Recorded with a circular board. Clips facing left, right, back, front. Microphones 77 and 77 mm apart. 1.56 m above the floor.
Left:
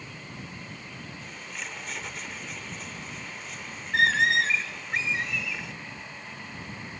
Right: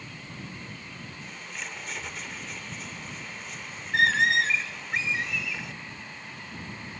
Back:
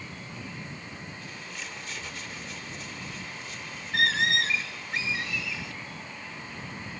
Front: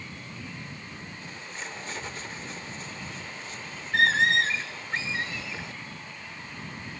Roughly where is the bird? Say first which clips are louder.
Right 1 dB, front 1 dB; ahead.